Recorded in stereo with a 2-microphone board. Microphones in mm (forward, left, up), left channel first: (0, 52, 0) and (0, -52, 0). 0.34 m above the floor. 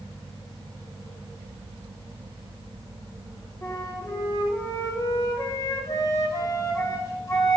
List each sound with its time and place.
3.6 s a flute: 35° left (ahead or behind), 1.2 m